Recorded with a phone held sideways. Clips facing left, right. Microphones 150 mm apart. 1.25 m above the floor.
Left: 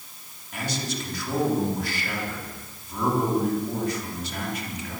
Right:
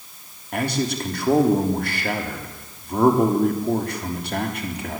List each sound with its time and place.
0.5 s a man speaking: 60° right (ahead or behind), 3.5 m